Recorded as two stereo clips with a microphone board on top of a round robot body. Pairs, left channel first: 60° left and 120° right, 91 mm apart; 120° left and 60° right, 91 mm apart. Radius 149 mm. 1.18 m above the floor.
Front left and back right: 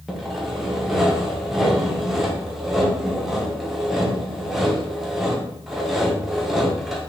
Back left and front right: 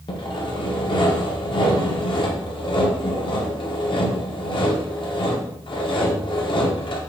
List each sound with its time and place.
0.1 s sawing: 150° left, 0.8 m